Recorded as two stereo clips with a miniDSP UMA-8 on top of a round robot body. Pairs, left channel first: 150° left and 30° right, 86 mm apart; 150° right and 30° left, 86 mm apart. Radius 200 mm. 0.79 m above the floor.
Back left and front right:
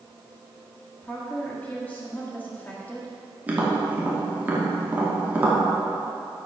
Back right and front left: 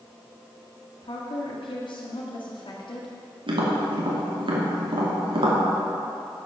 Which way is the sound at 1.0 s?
135° right.